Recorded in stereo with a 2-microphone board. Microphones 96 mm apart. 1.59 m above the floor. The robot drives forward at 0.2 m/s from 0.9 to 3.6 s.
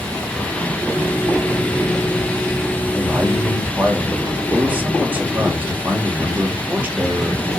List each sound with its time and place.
2.9 s a man speaking: 25° right (ahead or behind), 3.5 m